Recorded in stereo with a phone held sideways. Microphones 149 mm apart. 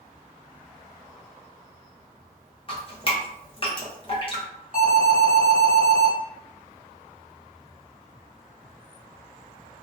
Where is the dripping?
40° left (ahead or behind), 0.7 m.